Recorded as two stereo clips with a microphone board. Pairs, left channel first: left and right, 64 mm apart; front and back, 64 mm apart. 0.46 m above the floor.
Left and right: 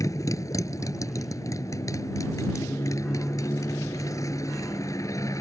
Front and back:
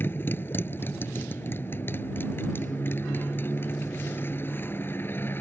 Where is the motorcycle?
55° left.